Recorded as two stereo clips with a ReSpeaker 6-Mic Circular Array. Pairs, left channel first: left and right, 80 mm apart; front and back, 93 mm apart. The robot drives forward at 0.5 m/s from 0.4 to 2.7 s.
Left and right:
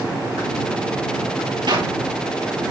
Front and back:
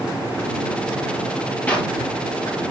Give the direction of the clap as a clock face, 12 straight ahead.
3 o'clock.